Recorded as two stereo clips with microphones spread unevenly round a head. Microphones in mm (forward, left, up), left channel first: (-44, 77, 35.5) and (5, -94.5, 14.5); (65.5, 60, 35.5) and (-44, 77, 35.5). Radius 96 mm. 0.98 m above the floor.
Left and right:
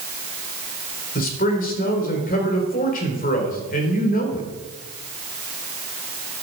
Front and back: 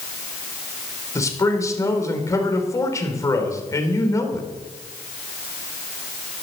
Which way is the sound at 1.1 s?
55° left.